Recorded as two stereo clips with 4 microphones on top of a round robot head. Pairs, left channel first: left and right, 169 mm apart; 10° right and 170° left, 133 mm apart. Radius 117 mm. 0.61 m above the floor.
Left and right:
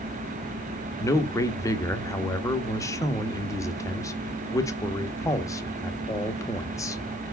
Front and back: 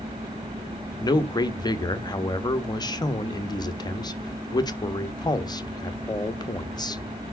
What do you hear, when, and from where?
1.0 s a man speaking: 30° left, 1.1 m